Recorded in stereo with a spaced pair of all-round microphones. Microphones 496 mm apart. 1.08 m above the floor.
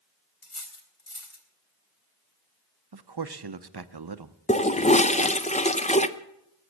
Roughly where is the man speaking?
Right.